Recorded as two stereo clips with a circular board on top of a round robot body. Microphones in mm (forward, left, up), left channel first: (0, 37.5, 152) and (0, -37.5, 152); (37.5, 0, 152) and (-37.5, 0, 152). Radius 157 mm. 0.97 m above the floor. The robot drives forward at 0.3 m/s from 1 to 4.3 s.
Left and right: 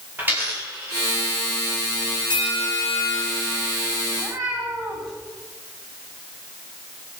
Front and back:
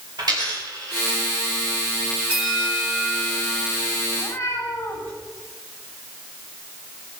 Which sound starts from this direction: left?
A bell, at 2.3 s.